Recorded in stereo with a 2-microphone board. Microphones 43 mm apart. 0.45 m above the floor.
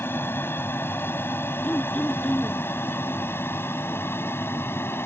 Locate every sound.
0.0 s an aircraft: 60° left (ahead or behind); by 5.1 s 65° left (ahead or behind)
1.6 s throat clearing: 30° left (ahead or behind)